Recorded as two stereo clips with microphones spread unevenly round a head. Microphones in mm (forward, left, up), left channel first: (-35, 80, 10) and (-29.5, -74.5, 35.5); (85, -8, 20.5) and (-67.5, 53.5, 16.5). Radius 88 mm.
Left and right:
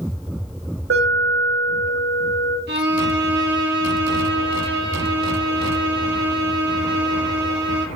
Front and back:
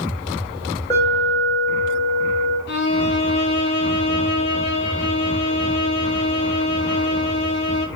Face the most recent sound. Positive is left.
turn(degrees=-55)